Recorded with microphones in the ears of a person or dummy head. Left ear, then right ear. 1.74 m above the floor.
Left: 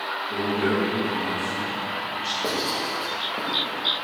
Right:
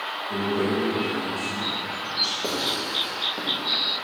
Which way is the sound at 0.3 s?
65° right (ahead or behind).